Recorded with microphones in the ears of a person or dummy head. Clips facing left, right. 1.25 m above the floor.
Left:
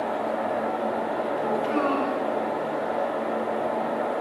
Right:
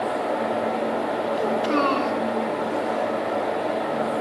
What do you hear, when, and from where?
1.4 s a child speaking: 55° right (ahead or behind), 1.3 m